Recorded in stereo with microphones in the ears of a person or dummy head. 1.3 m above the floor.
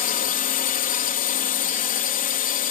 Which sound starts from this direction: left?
A drone, at 0.0 s.